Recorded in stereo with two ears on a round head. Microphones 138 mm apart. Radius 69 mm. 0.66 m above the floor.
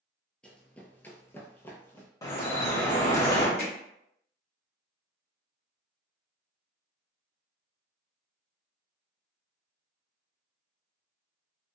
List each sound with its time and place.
0.4 s running footsteps: 5° left (ahead or behind), 0.7 m; by 2.1 s 15° left (ahead or behind), 1.0 m
2.2 s dripping: 20° left (ahead or behind), 0.6 m
3.6 s hammering: 70° left (ahead or behind), 1.3 m